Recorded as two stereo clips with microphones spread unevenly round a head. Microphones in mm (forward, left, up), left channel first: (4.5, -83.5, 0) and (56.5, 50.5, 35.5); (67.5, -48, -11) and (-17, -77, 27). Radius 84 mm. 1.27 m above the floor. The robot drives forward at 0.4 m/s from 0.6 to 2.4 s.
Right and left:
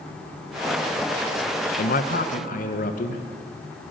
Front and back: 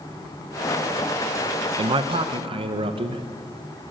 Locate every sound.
1.8 s a man speaking: 125° right, 1.1 m; by 3.2 s 135° right, 1.2 m